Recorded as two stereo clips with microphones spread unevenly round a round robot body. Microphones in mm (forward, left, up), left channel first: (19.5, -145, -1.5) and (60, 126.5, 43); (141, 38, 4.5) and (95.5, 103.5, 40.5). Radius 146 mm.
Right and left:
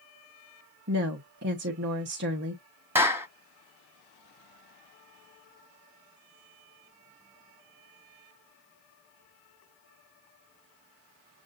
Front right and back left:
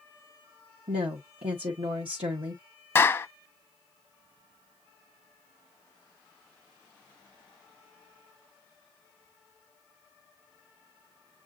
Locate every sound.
0.9 s a woman speaking: 135° left, 0.7 m
3.0 s a clap: 5° right, 0.7 m